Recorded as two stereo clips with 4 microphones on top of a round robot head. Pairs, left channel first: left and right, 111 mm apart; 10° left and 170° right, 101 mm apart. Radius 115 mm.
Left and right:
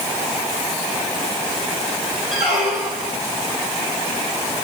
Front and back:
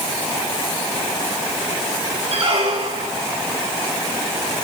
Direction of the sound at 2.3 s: 170° right.